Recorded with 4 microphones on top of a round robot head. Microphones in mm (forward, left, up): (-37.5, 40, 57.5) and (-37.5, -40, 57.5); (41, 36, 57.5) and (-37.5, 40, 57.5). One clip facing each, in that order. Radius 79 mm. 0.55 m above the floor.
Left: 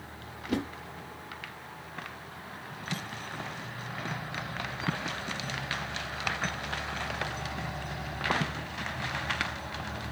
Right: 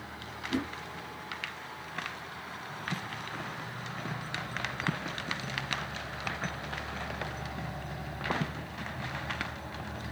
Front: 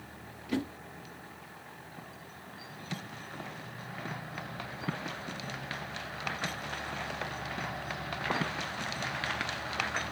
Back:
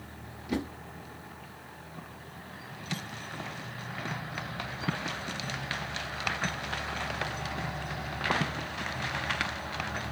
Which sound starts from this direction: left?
A whoosh, at 0.5 s.